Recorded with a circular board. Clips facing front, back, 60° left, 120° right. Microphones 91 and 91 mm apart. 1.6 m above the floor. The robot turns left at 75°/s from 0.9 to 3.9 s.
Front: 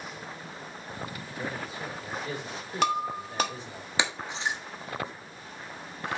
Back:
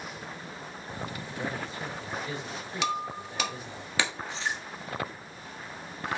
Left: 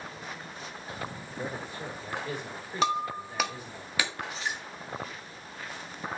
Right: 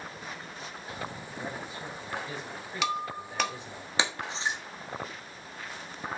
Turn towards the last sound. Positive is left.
turn(degrees=-60)